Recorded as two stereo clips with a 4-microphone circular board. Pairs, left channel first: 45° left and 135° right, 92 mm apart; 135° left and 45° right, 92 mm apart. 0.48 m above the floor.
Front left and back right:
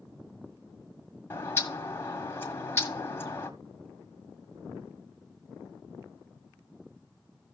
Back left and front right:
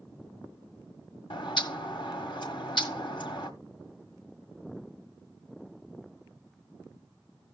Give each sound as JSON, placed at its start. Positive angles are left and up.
{"t": 1.3, "sound": "a bird", "azimuth_deg": 110, "distance_m": 1.6}